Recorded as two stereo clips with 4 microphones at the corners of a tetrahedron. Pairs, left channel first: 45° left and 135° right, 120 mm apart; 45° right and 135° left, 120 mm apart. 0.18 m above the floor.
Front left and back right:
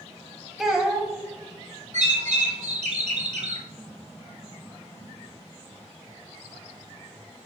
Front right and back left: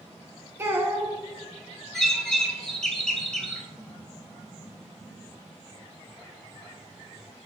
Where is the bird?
130° right, 0.6 m.